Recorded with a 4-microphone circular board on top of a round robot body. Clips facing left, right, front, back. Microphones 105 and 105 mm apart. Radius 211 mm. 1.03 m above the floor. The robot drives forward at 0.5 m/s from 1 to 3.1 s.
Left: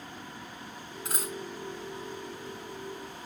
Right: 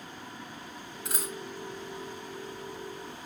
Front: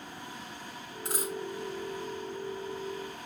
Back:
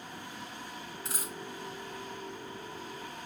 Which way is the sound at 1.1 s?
45° left.